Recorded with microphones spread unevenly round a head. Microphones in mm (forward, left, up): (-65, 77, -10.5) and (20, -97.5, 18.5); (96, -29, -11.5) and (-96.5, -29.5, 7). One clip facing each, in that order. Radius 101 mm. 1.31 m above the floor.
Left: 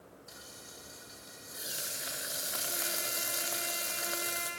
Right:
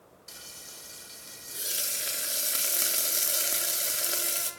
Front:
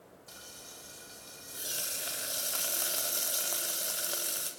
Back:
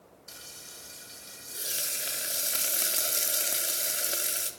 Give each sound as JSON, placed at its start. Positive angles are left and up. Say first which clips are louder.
{"t": 0.3, "sound": "frying", "louder": "left 1 dB, even", "azimuth_deg": -120, "distance_m": 4.0}